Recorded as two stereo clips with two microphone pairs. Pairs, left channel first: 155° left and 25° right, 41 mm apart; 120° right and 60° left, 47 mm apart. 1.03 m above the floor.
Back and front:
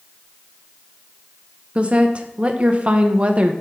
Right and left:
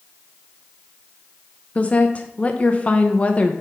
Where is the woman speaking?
75° right, 0.7 m.